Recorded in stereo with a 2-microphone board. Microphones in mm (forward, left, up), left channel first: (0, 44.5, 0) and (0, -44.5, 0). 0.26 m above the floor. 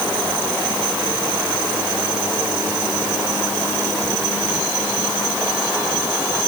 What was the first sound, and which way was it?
Only background noise.